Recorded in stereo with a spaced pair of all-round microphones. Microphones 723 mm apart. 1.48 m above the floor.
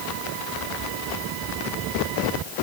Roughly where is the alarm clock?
No alarm clock in this recording.